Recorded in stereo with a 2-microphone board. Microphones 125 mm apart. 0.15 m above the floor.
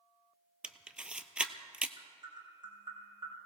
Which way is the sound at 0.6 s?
10° right (ahead or behind).